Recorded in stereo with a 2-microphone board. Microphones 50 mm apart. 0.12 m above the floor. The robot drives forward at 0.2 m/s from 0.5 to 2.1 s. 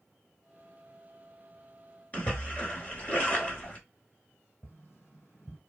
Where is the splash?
30° left (ahead or behind), 0.9 m.